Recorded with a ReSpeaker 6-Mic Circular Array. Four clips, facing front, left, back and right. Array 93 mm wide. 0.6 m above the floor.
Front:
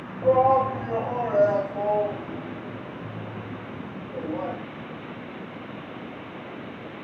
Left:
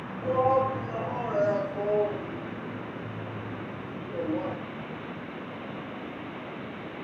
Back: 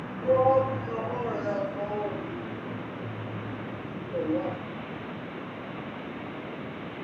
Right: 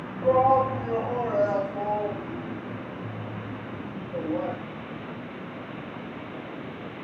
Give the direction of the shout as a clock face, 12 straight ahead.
1 o'clock.